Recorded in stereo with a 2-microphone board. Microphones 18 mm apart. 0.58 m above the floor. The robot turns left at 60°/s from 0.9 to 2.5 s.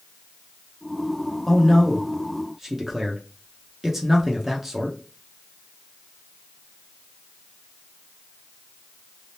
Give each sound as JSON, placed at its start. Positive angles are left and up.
{"t": 1.5, "sound": "a man speaking", "side_deg": 5, "distance_m": 0.7}